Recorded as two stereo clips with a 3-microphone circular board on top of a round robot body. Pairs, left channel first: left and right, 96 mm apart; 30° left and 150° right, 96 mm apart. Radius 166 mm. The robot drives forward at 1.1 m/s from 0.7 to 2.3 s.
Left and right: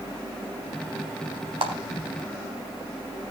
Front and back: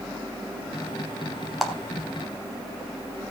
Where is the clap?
65° right, 3.5 m.